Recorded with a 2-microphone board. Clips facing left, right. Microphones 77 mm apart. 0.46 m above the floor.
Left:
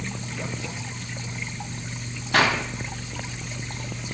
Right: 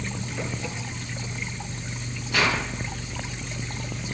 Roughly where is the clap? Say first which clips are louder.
Left 3 dB; left.